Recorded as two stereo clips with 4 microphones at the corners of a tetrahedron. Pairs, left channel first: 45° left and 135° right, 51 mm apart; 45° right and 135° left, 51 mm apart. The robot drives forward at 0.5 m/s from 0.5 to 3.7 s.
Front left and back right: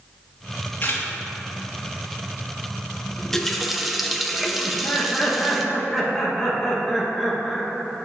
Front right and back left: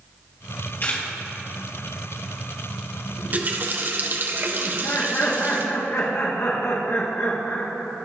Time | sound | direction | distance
0.8 | a camera shutter | straight ahead | 2.5 m
3.2 | a running tap | 110° left | 0.7 m
4.7 | laughter | 45° right | 2.5 m